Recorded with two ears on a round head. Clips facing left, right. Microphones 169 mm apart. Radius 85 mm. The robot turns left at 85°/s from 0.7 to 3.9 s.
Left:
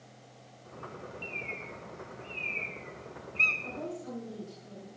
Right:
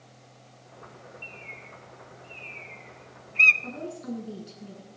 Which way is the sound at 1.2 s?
20° left (ahead or behind).